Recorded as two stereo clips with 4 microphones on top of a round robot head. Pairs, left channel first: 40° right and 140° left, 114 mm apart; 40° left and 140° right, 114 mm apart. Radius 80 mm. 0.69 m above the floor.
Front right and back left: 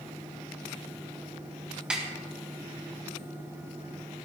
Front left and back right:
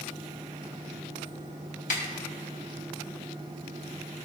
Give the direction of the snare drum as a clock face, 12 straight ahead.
10 o'clock.